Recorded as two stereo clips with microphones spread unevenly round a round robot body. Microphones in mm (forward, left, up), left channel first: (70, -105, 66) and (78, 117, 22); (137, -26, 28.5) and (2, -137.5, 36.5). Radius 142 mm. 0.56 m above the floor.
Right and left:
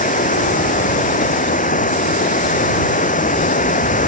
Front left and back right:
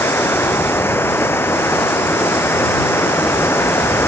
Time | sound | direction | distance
0.0 | running water | 40° right | ?